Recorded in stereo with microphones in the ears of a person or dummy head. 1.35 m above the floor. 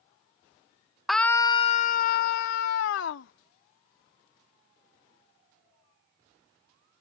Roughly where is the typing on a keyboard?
I don't hear typing on a keyboard.